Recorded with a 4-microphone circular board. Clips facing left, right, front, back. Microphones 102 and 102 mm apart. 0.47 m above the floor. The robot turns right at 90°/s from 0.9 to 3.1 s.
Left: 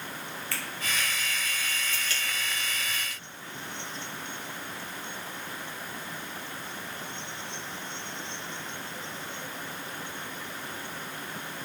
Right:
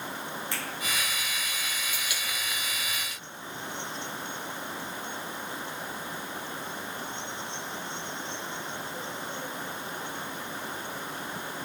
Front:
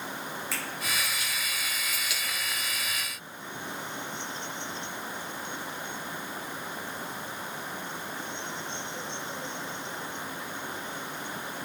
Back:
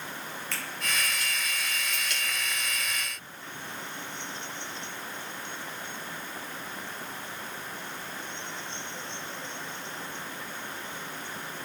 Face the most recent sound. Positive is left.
turn(degrees=130)